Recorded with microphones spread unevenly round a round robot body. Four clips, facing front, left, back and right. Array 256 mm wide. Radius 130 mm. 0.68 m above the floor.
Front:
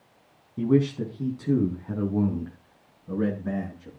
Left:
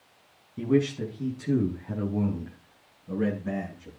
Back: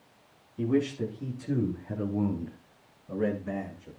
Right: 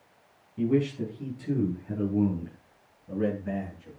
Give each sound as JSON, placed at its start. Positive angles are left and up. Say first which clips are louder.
{"t": 0.6, "sound": "a man speaking", "louder": "left 1 dB, front 5 dB", "azimuth_deg": 20, "distance_m": 6.0}